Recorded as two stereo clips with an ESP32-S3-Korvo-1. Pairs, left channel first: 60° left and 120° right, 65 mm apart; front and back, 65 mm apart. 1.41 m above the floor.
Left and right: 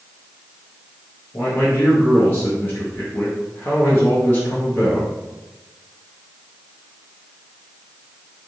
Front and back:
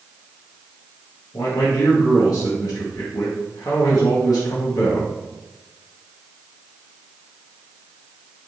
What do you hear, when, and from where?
1.3 s a man speaking: 5° left, 0.8 m